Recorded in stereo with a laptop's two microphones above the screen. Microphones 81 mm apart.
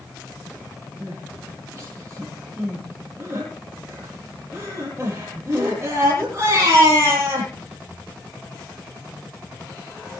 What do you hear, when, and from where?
1.0 s crying: 35° right (ahead or behind), 9.5 m